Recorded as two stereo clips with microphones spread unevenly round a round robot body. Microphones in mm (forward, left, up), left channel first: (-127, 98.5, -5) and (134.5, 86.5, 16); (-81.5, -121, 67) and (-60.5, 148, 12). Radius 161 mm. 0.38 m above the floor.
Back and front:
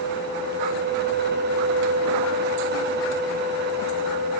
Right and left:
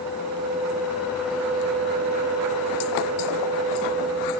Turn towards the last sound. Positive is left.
No sound to turn to.